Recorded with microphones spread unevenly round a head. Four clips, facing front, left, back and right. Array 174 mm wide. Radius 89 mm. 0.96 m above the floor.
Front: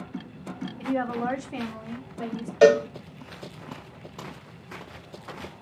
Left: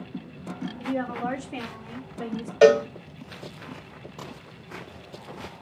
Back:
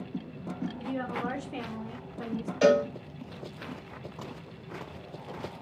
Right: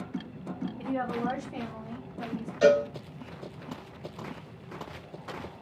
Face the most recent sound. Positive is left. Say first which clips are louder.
# left 5 dB, front 5 dB
turn(degrees=45)